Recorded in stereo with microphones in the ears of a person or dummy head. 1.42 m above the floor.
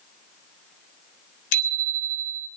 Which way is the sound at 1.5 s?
70° left (ahead or behind).